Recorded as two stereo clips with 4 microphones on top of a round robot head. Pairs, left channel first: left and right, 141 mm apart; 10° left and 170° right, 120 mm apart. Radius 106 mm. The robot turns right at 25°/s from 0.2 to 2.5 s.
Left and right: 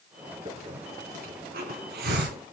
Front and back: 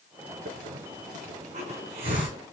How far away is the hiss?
About 3 m.